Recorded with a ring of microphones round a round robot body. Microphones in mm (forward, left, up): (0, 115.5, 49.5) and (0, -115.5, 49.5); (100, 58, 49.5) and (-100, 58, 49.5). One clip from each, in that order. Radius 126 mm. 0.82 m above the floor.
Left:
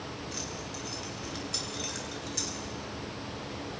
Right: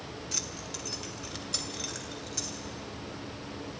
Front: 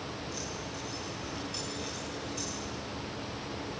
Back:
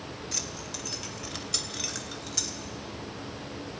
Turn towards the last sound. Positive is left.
turn(degrees=180)